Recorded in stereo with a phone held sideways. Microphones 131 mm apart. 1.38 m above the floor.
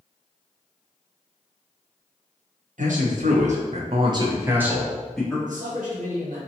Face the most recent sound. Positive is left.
turn(degrees=-80)